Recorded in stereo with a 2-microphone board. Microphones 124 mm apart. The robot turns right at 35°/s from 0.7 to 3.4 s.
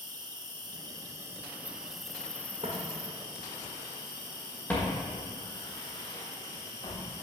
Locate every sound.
0.0 s an insect: 50° right, 0.7 m; by 7.2 s 45° left, 0.7 m
2.6 s footsteps: 50° right (ahead or behind), 1.6 m; by 7.0 s 40° left (ahead or behind), 4 m